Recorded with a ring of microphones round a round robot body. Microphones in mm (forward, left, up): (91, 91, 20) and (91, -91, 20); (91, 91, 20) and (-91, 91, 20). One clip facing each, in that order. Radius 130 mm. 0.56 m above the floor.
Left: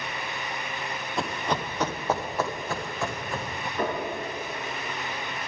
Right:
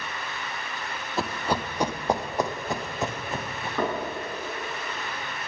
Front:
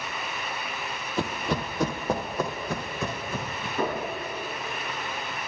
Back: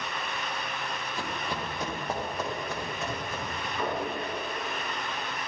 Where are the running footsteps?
5° right, 0.8 m; by 3.7 s 20° right, 2 m.